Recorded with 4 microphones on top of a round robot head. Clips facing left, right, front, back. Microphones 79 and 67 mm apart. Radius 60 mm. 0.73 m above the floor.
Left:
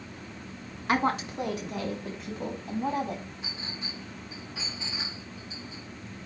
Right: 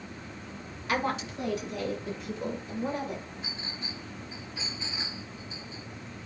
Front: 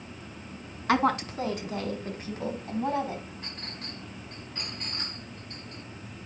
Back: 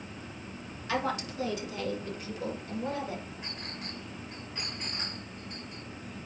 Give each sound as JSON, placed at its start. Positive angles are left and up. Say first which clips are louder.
{"t": 0.9, "sound": "a woman speaking", "louder": "left 4 dB, front 7 dB", "azimuth_deg": 30, "distance_m": 1.4}
{"t": 3.4, "sound": "a clink", "louder": "even, even", "azimuth_deg": 95, "distance_m": 5.0}